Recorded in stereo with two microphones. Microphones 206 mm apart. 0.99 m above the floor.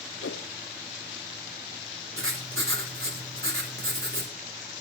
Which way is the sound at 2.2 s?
80° right.